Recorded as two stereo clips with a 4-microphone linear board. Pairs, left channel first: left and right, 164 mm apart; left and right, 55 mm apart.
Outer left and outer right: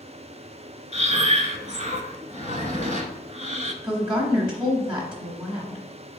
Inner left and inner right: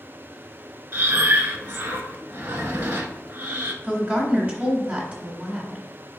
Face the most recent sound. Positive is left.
turn(degrees=-30)  # may be behind; listen again after turning